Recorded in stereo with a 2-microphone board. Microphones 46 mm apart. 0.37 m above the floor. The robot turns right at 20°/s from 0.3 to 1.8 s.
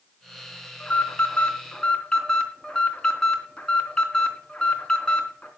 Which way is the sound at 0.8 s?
35° left (ahead or behind).